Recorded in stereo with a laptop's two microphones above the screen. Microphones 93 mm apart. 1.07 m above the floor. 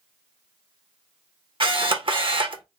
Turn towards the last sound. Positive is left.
turn(degrees=-65)  # may be behind; listen again after turning